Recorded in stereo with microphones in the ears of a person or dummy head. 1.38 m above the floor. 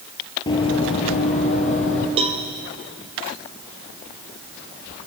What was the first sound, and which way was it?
Running footsteps, 20° left (ahead or behind).